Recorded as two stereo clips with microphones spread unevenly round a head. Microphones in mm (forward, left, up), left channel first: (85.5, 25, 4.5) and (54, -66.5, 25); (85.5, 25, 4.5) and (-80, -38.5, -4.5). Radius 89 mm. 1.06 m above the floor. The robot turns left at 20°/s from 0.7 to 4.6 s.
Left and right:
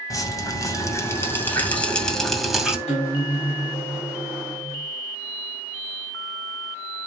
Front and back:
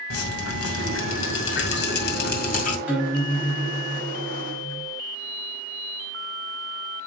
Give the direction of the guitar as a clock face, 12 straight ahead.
8 o'clock.